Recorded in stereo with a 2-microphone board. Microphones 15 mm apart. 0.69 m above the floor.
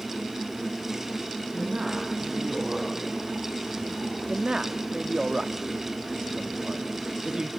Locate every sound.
1.5 s a man speaking: 55° right (ahead or behind), 5.5 m
4.3 s a man speaking: 55° right (ahead or behind), 0.8 m